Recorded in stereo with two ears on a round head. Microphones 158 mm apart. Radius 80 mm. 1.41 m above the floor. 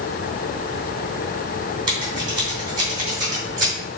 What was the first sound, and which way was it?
Scissors, 25° right (ahead or behind).